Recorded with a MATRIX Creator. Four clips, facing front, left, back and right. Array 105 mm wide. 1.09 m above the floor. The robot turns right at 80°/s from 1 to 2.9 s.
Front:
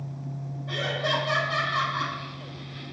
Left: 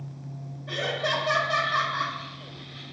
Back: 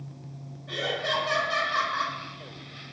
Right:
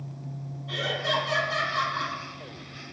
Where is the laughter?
80° left, 1.2 m; by 2.2 s 170° left, 1.2 m.